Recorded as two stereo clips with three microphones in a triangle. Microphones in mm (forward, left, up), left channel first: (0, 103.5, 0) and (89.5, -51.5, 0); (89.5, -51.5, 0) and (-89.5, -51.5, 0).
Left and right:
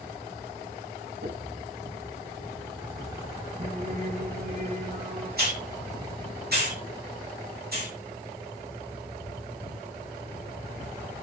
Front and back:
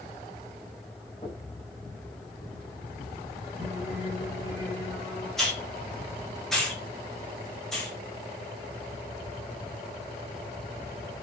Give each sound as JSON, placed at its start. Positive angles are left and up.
{"t": 1.2, "sound": "knocking", "azimuth_deg": -65, "distance_m": 6.5}
{"t": 3.6, "sound": "singing", "azimuth_deg": -95, "distance_m": 6.0}
{"t": 5.4, "sound": "a hiss", "azimuth_deg": -90, "distance_m": 6.0}